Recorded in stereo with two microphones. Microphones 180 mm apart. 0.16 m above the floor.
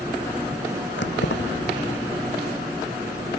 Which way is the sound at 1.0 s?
75° left (ahead or behind).